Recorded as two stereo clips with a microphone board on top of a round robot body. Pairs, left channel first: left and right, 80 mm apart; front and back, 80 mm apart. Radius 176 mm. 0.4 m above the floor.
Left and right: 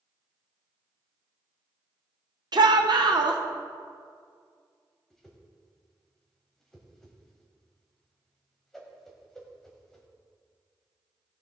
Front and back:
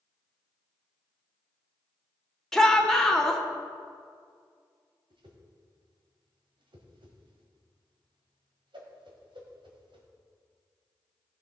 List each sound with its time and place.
2.5 s a shout: 80° right, 1.7 m
5.1 s a whoosh: 175° left, 2.0 m